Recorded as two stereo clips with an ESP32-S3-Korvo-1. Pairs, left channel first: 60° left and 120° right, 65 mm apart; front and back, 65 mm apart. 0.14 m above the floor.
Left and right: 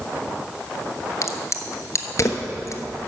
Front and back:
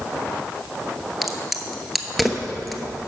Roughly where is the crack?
Left.